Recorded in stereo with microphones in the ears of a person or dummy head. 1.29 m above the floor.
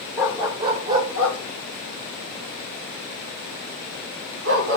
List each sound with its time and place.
0.2 s a dog barking: 10° right (ahead or behind), 1.4 m; by 4.8 s 70° right (ahead or behind), 3.5 m